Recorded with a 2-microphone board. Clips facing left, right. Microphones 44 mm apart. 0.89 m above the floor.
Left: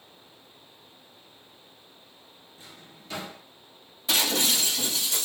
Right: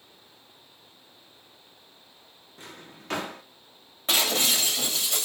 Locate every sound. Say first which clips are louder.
2.6 s a drawer: right 5 dB; 60° right (ahead or behind), 0.5 m
4.1 s breaking glass: right 1 dB; 45° right (ahead or behind), 1.8 m